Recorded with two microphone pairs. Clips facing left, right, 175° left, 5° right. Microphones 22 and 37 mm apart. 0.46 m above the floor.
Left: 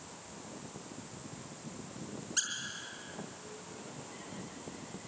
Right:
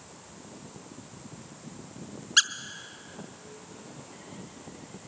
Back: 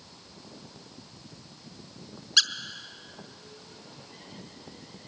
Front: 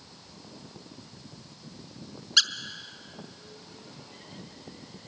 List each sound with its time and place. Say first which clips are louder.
2.4 s a squeak: right 14 dB, even; 90° right, 0.6 m